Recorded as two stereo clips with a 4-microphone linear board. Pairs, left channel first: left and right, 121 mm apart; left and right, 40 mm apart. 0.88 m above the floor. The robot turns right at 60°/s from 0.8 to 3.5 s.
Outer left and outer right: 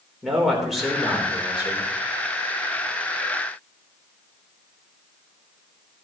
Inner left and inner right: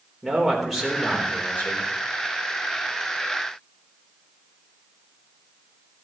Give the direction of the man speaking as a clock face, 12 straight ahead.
12 o'clock.